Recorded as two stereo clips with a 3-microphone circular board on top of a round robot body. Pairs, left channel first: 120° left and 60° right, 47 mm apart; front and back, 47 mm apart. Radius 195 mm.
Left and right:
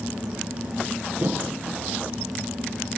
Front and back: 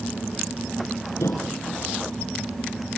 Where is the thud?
15° right, 6.5 m.